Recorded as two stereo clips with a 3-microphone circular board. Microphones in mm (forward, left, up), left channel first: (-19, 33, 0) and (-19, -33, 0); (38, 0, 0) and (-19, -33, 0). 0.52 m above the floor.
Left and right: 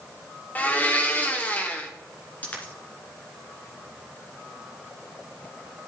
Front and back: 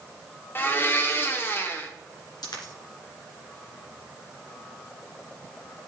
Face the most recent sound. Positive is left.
turn(degrees=25)